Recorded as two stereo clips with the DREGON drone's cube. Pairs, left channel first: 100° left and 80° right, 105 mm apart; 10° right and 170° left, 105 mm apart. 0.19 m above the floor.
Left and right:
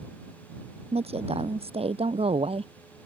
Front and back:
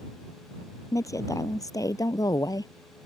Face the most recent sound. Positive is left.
turn(degrees=-65)